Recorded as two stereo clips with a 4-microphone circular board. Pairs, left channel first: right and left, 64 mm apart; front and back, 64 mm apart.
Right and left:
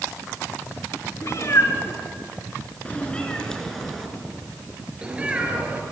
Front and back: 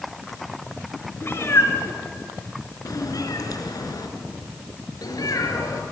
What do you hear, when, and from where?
1.2 s a cat meowing: 50° right, 4 m; by 5.8 s 25° left, 5 m